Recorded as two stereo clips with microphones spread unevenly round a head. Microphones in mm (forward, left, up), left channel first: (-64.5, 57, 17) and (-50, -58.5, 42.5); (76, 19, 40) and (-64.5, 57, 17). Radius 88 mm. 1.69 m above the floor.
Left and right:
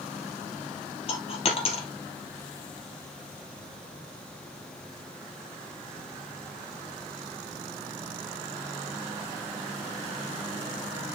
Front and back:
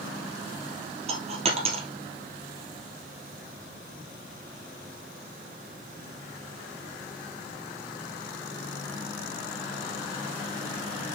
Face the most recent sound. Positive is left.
turn(degrees=125)